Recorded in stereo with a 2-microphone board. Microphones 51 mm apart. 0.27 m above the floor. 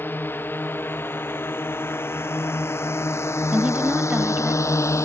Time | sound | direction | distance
0.0 | a drone | 45° left (ahead or behind) | ?
3.5 | a woman speaking | 25° right (ahead or behind) | ?